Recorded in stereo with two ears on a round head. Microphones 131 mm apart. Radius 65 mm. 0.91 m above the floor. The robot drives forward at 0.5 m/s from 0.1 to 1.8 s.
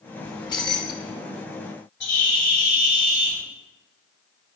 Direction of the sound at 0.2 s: 25° left (ahead or behind).